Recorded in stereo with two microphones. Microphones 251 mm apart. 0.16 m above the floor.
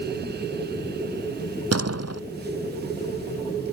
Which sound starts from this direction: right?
A door slam, at 1.7 s.